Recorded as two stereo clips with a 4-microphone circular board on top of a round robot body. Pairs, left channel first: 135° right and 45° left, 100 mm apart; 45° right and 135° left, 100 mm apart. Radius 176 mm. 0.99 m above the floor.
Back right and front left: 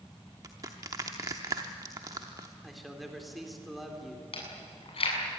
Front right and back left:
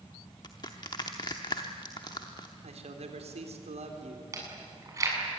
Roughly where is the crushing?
Ahead.